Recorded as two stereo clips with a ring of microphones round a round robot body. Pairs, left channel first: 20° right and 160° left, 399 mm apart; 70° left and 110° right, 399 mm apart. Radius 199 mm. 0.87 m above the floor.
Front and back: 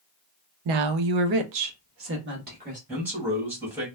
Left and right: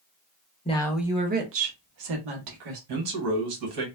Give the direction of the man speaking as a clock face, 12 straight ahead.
4 o'clock.